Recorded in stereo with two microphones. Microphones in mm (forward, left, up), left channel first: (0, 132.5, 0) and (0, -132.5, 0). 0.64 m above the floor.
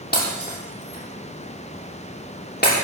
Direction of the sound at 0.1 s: 40° left (ahead or behind).